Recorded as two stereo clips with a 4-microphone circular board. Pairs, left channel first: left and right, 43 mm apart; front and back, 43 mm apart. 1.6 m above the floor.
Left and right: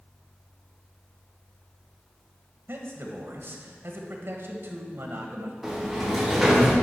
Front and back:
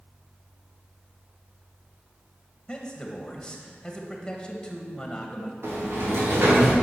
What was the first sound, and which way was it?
A man speaking, 70° right.